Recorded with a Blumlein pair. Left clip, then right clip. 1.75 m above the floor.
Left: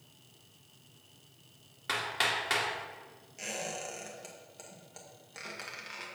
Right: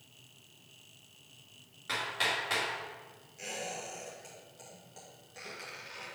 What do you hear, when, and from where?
1.9 s hammering: 20° left, 2.5 m
3.4 s a squeak: 20° left, 2 m